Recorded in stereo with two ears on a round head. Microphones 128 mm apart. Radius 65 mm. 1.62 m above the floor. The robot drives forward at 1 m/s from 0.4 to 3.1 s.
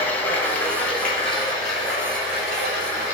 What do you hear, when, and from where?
0.0 s running water: 15° left (ahead or behind), 1.2 m; by 3.1 s 5° left (ahead or behind), 4 m